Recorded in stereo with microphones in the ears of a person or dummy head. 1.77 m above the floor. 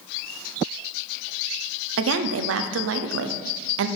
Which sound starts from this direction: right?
A woman speaking, at 2.0 s.